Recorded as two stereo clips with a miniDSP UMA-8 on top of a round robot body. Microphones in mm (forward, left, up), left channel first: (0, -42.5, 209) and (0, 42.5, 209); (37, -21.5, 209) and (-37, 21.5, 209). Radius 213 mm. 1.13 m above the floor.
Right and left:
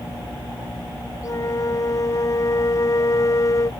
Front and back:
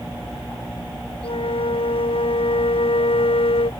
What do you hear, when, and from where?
1.2 s a flute: 40° right